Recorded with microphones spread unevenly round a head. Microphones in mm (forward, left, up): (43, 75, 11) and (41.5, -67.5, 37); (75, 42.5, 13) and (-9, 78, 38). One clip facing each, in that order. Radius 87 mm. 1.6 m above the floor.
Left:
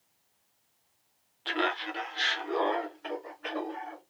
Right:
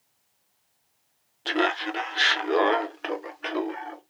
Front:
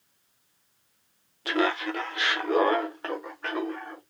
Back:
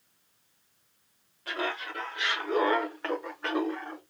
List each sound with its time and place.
1.4 s laughter: 55° right, 1.0 m; by 4.0 s 130° right, 1.2 m